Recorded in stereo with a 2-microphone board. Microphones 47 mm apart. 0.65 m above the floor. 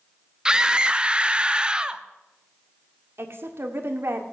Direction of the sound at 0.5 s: 15° right (ahead or behind).